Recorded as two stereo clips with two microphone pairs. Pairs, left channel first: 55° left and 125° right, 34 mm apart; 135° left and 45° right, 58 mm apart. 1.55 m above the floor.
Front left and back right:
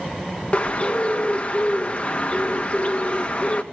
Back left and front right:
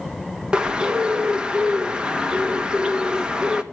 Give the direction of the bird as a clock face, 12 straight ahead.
11 o'clock.